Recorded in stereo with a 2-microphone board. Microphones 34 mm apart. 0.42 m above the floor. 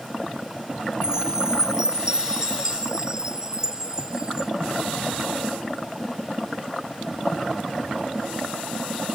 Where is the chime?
20° right (ahead or behind).